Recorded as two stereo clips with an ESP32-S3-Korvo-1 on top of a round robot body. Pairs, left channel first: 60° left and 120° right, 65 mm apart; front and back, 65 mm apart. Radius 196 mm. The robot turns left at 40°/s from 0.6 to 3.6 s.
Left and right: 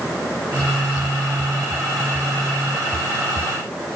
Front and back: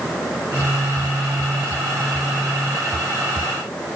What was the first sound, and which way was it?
Only background noise.